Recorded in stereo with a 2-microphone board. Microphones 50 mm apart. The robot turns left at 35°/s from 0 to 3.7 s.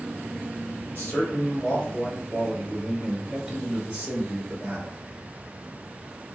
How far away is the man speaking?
About 2 m.